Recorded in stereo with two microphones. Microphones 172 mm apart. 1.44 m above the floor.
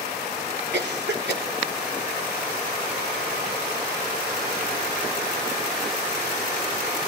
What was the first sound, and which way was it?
A cough, 85° right.